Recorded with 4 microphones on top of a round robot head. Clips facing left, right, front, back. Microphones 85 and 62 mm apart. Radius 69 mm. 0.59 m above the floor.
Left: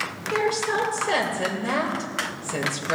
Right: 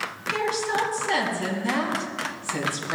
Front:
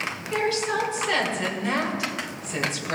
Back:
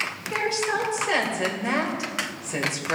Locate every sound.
0.3 s a woman speaking: 110° left, 2 m